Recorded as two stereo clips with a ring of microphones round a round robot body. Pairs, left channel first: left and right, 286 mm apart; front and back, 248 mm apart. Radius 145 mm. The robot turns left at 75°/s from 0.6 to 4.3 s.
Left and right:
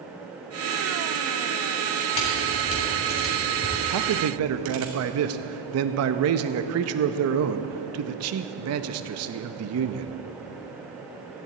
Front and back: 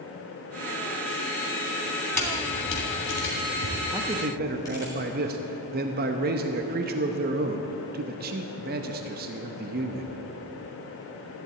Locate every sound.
2.1 s a camera shutter: 80° left, 3 m; by 4.9 s 80° right, 3 m
3.9 s a man speaking: 95° right, 0.7 m; by 10.2 s 125° right, 0.7 m